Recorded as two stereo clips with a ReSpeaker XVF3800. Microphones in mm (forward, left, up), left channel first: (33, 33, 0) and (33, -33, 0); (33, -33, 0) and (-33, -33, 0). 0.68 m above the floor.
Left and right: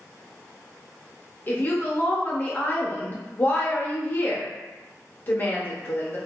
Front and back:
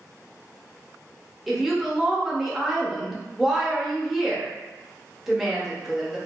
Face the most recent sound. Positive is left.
turn(degrees=100)